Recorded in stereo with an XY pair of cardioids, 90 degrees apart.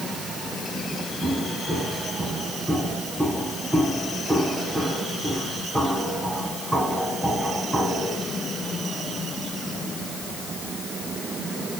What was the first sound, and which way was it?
Footsteps, 5° right.